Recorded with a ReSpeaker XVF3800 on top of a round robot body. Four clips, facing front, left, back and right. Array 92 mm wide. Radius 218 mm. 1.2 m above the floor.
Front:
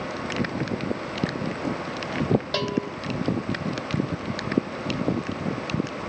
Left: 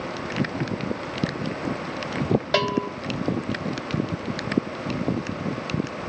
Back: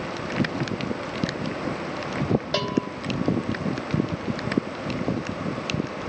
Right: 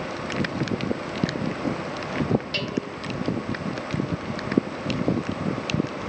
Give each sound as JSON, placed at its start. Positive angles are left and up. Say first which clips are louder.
{"t": 2.5, "sound": "a bell", "louder": "left 6 dB, back 1 dB", "azimuth_deg": 100, "distance_m": 1.9}